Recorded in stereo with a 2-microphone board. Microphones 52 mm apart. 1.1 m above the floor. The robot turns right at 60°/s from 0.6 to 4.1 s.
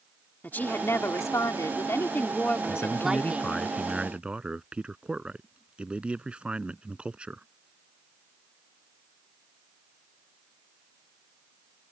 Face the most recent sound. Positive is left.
turn(degrees=-160)